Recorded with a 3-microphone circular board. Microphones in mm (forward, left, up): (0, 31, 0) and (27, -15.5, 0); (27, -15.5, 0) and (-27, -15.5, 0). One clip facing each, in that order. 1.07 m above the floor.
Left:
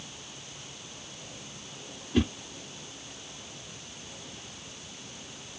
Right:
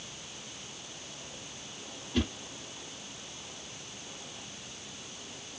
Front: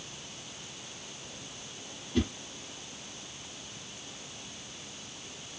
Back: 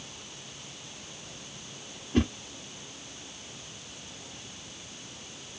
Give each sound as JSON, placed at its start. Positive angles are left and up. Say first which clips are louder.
{"t": 2.1, "sound": "a whoosh", "louder": "left 5 dB, back 4 dB", "azimuth_deg": -175, "distance_m": 0.7}